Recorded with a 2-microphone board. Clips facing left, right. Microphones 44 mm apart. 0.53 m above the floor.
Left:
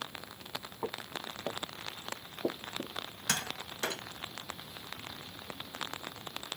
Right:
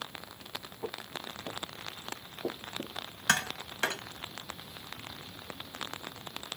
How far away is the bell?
I don't hear a bell.